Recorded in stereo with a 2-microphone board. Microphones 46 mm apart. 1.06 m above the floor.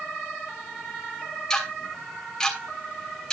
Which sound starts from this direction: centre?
Ticking, at 1.5 s.